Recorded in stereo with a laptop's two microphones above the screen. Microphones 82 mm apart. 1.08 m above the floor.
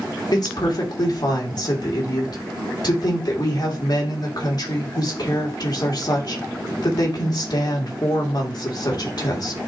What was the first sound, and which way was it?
A woman speaking, 55° left (ahead or behind).